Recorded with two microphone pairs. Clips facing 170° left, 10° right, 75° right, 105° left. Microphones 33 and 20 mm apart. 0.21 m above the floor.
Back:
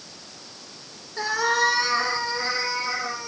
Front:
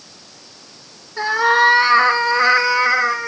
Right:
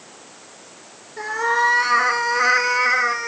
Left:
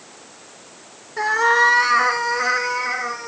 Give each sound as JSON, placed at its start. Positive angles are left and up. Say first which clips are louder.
{"t": 1.2, "sound": "a cat meowing", "louder": "front 8 dB, left 4 dB", "azimuth_deg": 55, "distance_m": 1.4}